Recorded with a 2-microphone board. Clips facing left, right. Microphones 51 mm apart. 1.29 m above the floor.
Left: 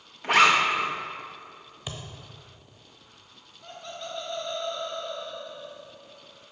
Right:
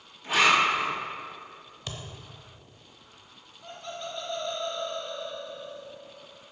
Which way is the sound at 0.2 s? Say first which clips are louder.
Left 2 dB; 65° left (ahead or behind).